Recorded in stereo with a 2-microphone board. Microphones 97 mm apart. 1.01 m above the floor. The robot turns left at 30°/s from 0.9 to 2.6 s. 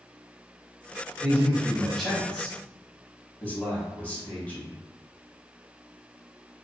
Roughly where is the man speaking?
Centre.